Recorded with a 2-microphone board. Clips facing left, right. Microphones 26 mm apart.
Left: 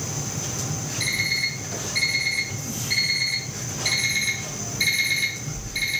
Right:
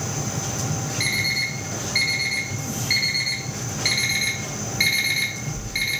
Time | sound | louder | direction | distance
1.0 | an alarm clock | right 1 dB | 45° right (ahead or behind) | 1.1 m